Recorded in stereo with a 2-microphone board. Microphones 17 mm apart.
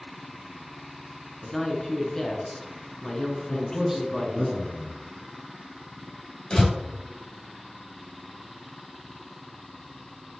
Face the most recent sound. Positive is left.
turn(degrees=60)  # may be behind; listen again after turning